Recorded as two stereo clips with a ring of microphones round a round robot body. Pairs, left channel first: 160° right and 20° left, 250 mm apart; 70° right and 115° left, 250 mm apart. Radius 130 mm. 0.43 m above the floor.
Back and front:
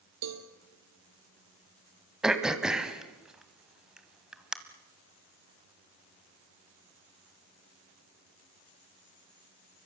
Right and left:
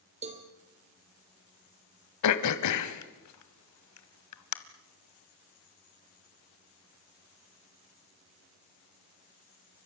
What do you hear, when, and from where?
0.2 s a cowbell: 50° left, 3 m
2.2 s throat clearing: 65° right, 1.5 m